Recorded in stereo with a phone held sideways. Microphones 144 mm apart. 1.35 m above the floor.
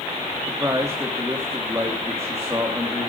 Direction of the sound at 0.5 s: 20° right (ahead or behind).